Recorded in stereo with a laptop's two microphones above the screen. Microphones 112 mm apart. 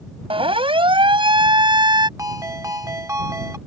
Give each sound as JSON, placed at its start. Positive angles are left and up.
{"t": 0.3, "sound": "a siren", "side_deg": -50}
{"t": 2.2, "sound": "a ringtone", "side_deg": -25}